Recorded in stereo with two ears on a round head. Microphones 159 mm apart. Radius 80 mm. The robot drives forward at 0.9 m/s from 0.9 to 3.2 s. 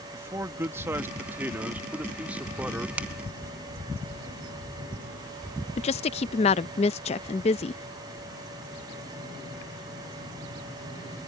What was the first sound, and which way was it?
A man speaking, 15° right (ahead or behind).